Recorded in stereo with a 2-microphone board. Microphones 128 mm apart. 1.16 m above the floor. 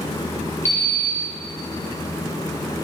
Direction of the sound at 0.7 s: 25° right (ahead or behind).